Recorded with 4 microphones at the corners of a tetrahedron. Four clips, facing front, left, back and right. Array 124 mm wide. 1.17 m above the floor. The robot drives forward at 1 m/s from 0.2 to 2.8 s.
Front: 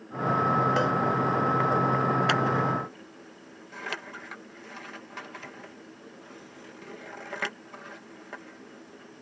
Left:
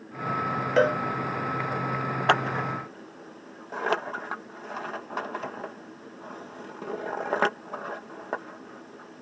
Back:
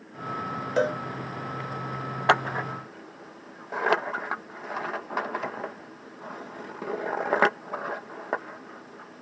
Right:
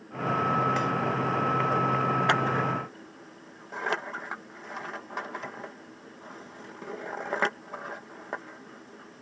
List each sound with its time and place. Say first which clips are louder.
0.8 s a cowbell: left 6 dB, even; 105° left; by 1.0 s 110° left
2.3 s scissors: left 1 dB, back 1 dB; 145° left; by 9.2 s 160° left